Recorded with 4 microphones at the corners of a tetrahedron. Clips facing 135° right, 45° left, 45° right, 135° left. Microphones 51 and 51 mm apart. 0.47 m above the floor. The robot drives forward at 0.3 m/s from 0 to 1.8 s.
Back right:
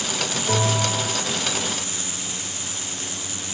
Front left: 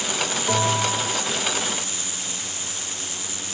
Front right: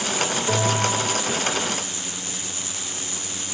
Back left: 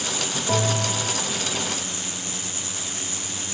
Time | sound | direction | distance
0.5 | a bell | 5° right | 4 m